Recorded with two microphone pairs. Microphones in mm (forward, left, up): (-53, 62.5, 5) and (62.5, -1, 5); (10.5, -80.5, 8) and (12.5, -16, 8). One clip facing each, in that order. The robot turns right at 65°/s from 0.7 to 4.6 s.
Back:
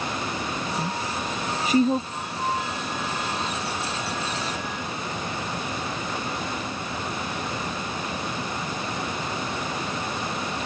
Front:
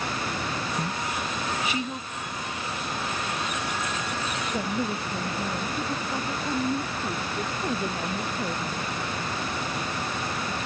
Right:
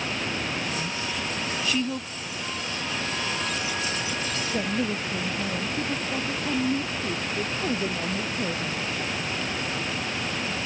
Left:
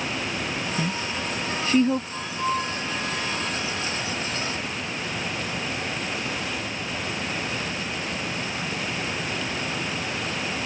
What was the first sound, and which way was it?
A woman speaking, 65° left.